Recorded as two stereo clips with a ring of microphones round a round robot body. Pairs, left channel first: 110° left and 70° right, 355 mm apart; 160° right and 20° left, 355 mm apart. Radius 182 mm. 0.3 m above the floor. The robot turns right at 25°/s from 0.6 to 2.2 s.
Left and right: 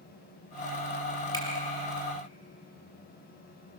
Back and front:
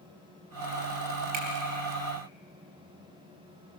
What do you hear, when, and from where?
1.3 s a finger snap: 35° left, 5 m